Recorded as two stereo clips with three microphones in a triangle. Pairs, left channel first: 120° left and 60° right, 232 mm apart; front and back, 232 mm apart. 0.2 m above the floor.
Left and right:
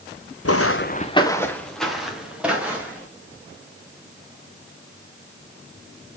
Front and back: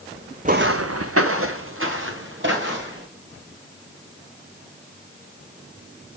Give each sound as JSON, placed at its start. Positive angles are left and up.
{"t": 0.5, "sound": "footsteps", "azimuth_deg": 120, "distance_m": 0.7}